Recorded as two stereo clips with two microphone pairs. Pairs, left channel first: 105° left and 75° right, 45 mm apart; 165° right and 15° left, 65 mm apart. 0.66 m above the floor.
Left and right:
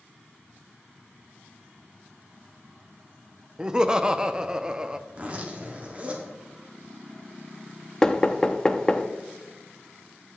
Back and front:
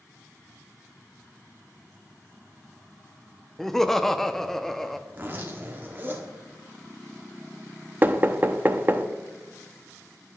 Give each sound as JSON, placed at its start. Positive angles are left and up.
{"t": 3.6, "sound": "laughter", "azimuth_deg": -90, "distance_m": 0.5}
{"t": 5.1, "sound": "a zipper", "azimuth_deg": -30, "distance_m": 1.4}
{"t": 8.0, "sound": "knocking", "azimuth_deg": 35, "distance_m": 0.5}